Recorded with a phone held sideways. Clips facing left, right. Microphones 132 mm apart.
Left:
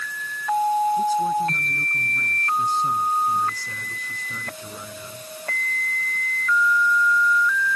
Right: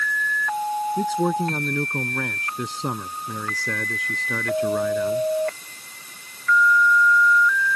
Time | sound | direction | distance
1.0 | a man speaking | 80° right | ?